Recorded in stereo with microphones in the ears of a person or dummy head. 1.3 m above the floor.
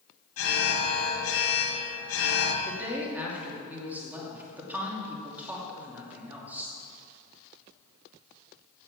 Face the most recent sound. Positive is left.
turn(degrees=-10)  # may be behind; listen again after turning